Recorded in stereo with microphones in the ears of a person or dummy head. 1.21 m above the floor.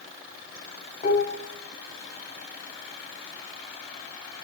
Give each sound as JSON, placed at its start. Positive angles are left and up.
{"t": 1.0, "sound": "dishes clattering", "side_deg": 40, "distance_m": 2.0}